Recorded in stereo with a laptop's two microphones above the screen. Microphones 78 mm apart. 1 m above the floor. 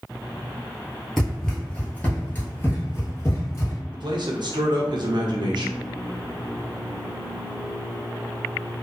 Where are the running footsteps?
5° left (ahead or behind), 1.1 m; by 3.8 s 35° left (ahead or behind), 1.5 m.